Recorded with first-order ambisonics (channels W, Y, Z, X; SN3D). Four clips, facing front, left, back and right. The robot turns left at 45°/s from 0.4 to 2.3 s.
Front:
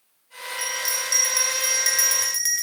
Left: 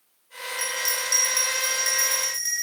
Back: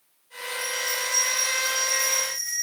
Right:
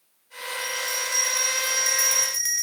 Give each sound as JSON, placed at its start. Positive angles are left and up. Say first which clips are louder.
{"t": 0.6, "sound": "a bell", "louder": "left 1 dB, front 1 dB", "azimuth_deg": 60, "distance_m": 1.7}